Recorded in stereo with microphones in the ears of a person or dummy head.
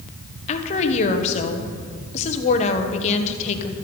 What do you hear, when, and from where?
0.5 s a woman speaking: 35° left (ahead or behind), 1.4 m